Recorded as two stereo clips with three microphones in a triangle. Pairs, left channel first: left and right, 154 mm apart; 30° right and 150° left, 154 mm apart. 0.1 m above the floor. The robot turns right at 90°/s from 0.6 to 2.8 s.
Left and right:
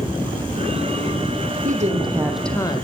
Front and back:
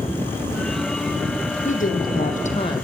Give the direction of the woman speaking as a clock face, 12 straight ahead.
2 o'clock.